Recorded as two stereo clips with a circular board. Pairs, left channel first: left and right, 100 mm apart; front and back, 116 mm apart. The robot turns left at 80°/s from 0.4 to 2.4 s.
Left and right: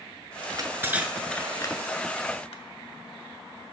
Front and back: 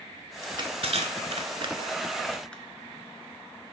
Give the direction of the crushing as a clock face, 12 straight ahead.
4 o'clock.